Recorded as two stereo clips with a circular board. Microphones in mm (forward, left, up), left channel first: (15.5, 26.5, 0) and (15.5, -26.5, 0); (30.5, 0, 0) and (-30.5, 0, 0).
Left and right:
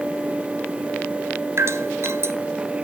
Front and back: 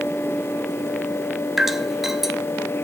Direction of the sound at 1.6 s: 100° right.